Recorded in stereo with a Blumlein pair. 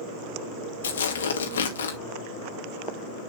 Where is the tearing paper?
65° left, 2.5 m.